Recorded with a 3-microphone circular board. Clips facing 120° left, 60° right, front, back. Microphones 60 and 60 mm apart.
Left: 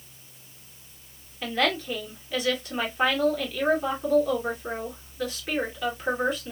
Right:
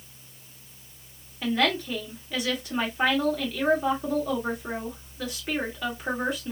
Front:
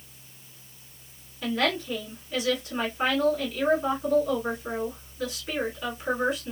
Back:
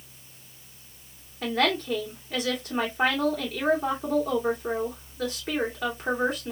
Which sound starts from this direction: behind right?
A woman speaking, at 1.4 s.